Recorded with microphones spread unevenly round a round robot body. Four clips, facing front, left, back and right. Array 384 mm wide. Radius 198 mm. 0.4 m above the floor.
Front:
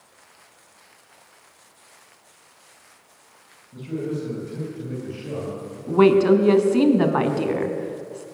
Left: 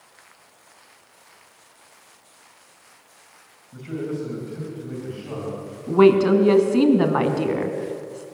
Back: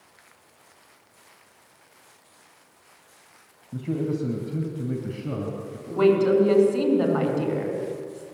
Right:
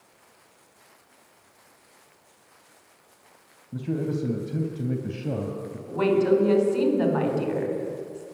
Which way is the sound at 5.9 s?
55° left.